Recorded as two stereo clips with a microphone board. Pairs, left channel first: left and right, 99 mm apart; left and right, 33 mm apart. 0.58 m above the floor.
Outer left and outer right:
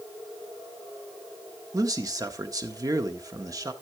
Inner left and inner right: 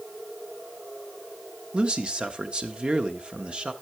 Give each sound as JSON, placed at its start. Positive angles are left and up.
{"t": 1.7, "sound": "a man speaking", "side_deg": -40, "distance_m": 1.2}